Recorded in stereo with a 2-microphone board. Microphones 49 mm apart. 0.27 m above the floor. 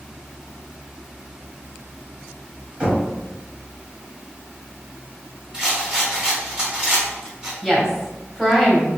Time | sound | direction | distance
2.8 | knocking | 25° right (ahead or behind) | 1.5 m
5.5 | a rattle | 15° right (ahead or behind) | 1.6 m
7.6 | a woman speaking | 5° right (ahead or behind) | 1.7 m